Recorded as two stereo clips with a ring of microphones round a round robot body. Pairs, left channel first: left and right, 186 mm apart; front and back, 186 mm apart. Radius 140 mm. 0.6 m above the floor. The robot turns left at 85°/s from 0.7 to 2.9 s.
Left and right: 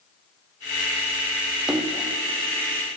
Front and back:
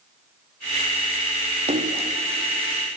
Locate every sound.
1.7 s a splash: 175° right, 0.6 m; by 2.1 s 150° left, 0.6 m